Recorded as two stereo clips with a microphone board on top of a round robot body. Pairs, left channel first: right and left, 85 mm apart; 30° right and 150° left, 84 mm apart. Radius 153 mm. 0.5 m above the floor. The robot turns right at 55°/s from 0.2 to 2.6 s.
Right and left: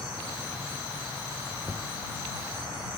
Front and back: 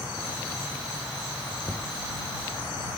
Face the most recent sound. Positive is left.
turn(degrees=80)